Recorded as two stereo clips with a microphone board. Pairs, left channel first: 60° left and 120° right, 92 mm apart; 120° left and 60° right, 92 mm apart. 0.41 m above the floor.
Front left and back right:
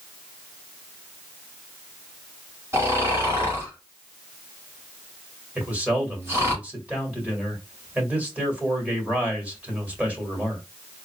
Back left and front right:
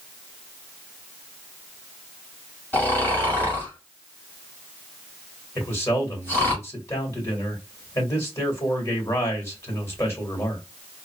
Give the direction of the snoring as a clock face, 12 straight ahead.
6 o'clock.